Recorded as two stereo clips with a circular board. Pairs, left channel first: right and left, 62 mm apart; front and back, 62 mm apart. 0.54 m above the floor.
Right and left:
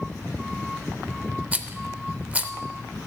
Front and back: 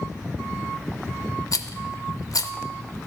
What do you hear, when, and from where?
1.5 s a rattle: 25° left, 0.5 m